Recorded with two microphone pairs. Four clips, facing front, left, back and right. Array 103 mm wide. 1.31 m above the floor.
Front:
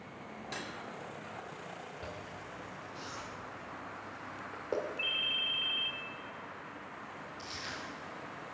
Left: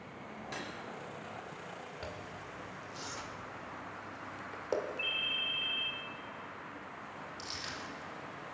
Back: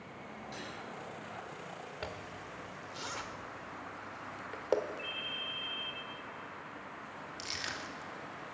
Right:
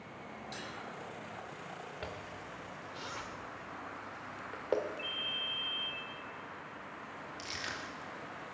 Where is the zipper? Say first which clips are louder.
Even, back 1 dB; 170° right, 1.3 m.